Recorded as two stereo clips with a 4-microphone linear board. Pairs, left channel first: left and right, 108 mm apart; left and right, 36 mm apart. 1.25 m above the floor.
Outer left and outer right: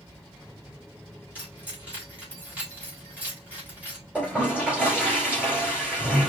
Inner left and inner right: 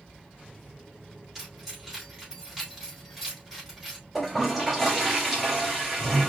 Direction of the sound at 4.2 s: 10° right (ahead or behind).